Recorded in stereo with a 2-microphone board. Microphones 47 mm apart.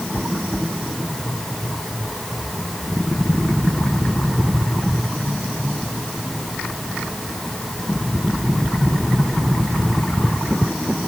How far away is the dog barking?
No dog barking in this recording.